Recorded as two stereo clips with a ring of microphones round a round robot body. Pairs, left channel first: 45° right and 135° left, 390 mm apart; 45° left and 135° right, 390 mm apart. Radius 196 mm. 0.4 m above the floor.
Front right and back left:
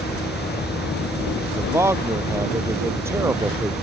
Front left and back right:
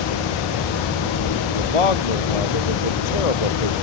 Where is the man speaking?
50° left.